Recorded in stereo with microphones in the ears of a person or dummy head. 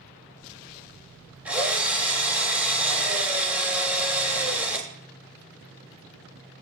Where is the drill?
Centre (ahead or behind), 2.5 m.